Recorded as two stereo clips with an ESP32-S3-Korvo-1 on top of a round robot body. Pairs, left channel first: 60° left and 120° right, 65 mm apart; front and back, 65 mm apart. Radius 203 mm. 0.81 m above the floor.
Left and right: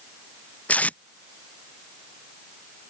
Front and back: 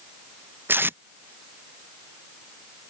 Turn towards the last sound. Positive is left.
turn(degrees=125)